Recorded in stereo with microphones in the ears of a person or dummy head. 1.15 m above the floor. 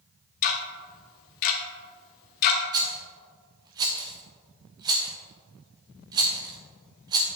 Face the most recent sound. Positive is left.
turn(degrees=-20)  # may be behind; listen again after turning